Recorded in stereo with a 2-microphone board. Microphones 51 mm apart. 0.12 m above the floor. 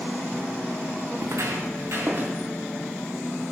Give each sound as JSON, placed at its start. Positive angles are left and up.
{"t": 1.2, "sound": "footsteps", "side_deg": -55, "distance_m": 0.6}